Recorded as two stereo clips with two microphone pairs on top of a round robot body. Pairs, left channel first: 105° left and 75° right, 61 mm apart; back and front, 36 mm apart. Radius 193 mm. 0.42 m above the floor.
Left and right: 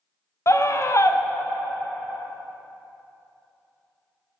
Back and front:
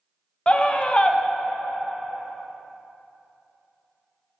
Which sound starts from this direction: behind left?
A scream, at 0.5 s.